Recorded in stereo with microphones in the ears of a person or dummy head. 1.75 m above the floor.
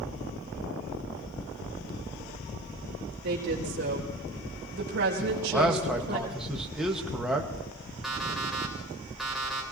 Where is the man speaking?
10° right (ahead or behind), 1.9 m.